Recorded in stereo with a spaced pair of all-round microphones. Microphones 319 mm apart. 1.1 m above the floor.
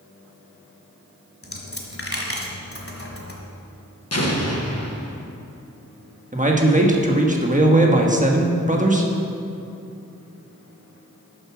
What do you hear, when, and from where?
1.4 s a dropped coin: 45° left (ahead or behind), 1.4 m
4.1 s an explosion: 50° left (ahead or behind), 1.3 m
6.3 s a man speaking: 25° right (ahead or behind), 1.2 m